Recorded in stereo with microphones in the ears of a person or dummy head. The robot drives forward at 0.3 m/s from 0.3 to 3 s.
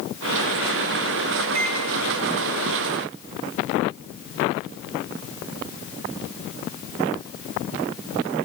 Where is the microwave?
60° right (ahead or behind), 0.8 m.